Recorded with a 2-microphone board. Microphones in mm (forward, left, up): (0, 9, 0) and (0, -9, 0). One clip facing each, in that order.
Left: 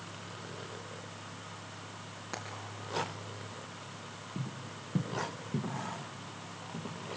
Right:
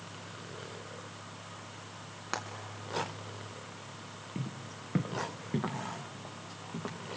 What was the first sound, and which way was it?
Frying, 35° right (ahead or behind).